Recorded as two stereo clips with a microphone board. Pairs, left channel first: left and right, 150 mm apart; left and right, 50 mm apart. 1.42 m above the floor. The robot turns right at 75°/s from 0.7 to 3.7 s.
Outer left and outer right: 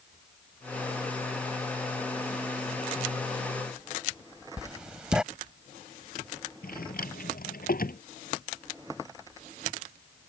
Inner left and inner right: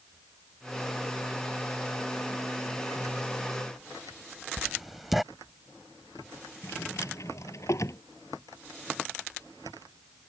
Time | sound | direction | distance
4.6 | writing | 5° right (ahead or behind) | ?
6.6 | a drawer | 80° left | ?